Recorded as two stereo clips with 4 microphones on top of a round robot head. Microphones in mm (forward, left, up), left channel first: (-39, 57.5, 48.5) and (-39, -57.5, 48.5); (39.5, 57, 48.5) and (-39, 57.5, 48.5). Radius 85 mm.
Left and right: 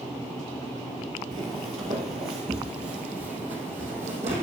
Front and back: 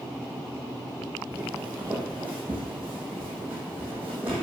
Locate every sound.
1.3 s footsteps: 105° right, 1.8 m; by 4.4 s 100° right, 3.5 m